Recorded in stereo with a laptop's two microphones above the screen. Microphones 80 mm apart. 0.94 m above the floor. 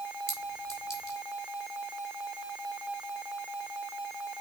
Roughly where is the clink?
Left.